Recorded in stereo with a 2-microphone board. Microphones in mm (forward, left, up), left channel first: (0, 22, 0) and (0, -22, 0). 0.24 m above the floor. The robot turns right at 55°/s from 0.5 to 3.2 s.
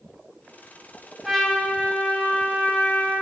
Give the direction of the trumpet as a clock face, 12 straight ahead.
12 o'clock.